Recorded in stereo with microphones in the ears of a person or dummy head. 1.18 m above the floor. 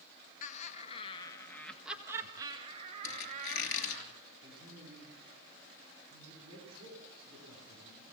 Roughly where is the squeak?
Left.